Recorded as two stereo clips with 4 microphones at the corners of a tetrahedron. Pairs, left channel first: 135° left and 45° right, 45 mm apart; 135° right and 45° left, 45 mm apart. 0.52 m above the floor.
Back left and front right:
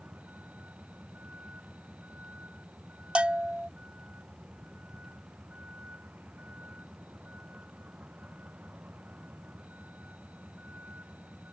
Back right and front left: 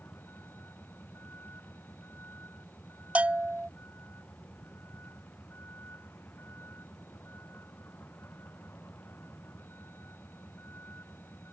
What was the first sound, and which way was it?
A vehicle, 100° right.